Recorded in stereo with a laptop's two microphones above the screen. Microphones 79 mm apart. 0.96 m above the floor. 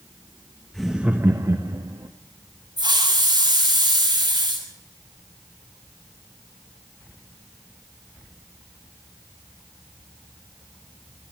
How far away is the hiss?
About 9 m.